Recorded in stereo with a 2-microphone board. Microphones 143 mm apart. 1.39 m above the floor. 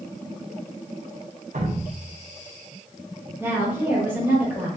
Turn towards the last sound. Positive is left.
turn(degrees=-15)  # may be behind; listen again after turning